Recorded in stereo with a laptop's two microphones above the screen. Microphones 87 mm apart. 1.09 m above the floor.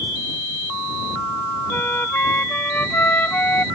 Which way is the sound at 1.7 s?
20° left (ahead or behind).